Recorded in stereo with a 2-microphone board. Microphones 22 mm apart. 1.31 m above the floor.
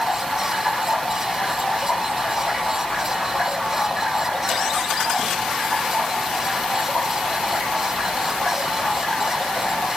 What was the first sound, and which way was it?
Running water, 50° left (ahead or behind).